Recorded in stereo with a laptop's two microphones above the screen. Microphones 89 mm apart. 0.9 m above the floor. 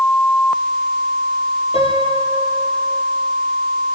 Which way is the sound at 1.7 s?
85° left.